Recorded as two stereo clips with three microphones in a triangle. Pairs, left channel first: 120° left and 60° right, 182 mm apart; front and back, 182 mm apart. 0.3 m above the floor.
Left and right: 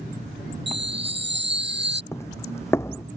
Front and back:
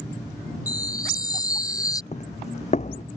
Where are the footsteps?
45° left.